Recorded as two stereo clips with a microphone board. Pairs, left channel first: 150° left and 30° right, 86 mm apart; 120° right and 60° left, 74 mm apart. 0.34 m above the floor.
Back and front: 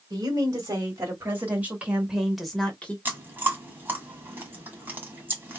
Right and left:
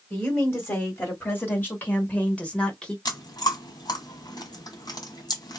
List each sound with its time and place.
0.1 s a woman speaking: 65° right, 1.8 m; by 3.0 s 175° right, 1.2 m
3.0 s chewing: 95° right, 1.4 m